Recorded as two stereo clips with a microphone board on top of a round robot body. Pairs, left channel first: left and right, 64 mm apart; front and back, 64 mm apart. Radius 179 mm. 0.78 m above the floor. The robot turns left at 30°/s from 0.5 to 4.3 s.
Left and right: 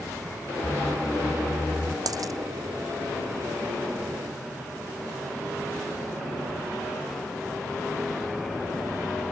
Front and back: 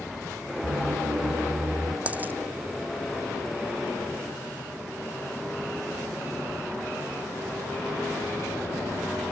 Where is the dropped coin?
110° right; by 2.3 s 120° right.